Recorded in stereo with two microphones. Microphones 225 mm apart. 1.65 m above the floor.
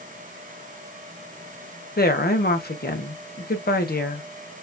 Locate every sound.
2.0 s a woman speaking: 45° left (ahead or behind), 1.2 m